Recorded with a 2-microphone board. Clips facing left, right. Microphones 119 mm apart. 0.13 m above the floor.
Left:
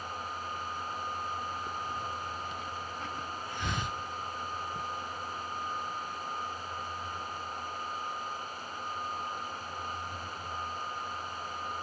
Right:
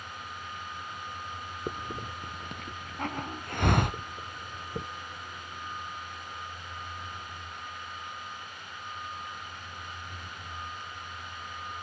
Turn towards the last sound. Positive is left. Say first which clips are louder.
# even
turn(degrees=-60)  # may be behind; listen again after turning